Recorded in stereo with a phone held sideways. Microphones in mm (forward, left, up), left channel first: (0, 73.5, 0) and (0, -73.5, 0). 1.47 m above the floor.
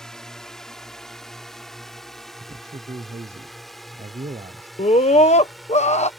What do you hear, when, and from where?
0.0 s a drone: 5° left (ahead or behind); by 6.2 s centre (ahead or behind)
2.4 s a man speaking: 50° right (ahead or behind)
4.8 s a scream: 50° left (ahead or behind)